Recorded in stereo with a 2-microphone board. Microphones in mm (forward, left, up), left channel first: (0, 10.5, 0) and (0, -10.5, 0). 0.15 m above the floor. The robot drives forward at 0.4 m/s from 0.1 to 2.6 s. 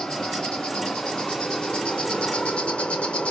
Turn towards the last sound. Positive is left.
turn(degrees=90)